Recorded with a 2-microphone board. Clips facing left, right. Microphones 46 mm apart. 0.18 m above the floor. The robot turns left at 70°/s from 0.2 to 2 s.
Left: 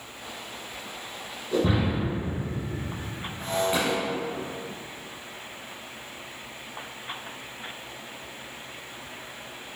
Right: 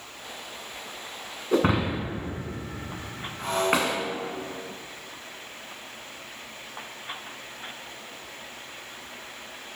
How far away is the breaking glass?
About 1.7 m.